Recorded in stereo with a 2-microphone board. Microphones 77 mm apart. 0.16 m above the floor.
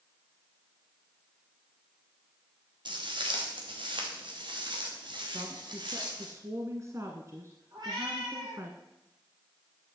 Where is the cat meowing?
55° right (ahead or behind), 6.5 m.